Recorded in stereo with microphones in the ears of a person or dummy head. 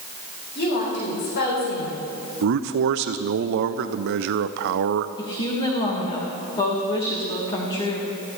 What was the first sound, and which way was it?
A woman speaking, 60° left (ahead or behind).